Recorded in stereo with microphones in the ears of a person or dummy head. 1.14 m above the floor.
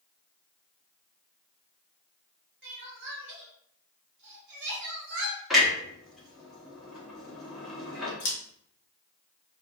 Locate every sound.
2.6 s crying: 60° right (ahead or behind), 0.8 m
5.5 s a clunk: centre (ahead or behind), 0.8 m
8.2 s scissors: 65° left (ahead or behind), 0.9 m